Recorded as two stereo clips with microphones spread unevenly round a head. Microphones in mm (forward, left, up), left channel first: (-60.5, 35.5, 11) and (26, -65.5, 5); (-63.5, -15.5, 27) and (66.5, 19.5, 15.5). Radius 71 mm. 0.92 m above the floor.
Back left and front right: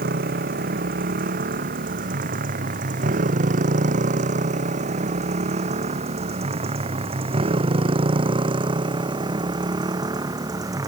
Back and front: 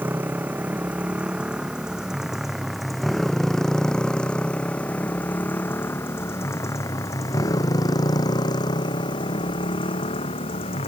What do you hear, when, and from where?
0.0 s a motorcycle: 65° right; by 10.9 s 115° right